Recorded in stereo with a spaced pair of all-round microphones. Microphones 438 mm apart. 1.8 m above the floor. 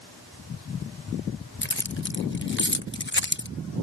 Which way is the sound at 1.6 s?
25° left (ahead or behind).